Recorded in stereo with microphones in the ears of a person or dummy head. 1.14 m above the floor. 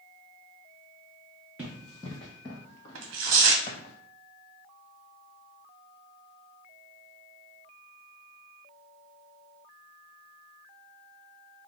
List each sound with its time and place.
1.6 s running footsteps: 10° right (ahead or behind), 1.1 m; by 3.9 s 40° left (ahead or behind), 2 m
3.0 s tearing paper: 75° right (ahead or behind), 0.9 m